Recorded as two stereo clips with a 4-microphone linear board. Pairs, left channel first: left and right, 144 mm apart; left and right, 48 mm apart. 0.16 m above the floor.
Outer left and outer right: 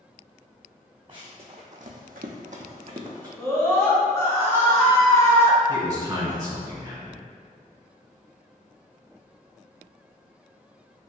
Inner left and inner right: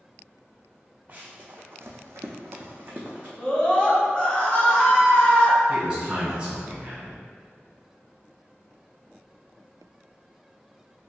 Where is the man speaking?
25° right (ahead or behind), 1.7 m.